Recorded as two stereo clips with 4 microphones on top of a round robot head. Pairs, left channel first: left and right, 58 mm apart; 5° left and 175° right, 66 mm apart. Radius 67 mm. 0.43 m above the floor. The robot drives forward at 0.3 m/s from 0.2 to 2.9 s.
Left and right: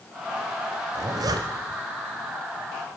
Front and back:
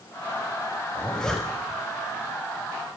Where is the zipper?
70° right, 0.7 m; by 1.8 s 95° right, 0.7 m.